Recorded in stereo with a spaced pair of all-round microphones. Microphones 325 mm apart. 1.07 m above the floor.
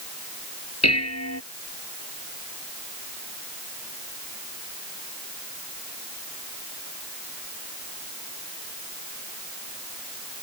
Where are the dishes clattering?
50° left (ahead or behind).